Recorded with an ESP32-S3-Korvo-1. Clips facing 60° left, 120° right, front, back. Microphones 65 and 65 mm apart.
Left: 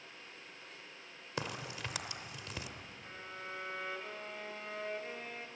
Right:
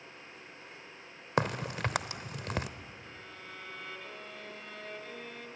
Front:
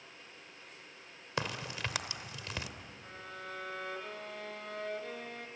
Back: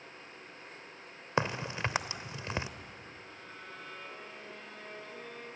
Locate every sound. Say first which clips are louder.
1.4 s a crack: right 10 dB, back 5 dB; 125° right, 0.9 m
3.0 s a violin: left 2 dB, front 4 dB; straight ahead, 2 m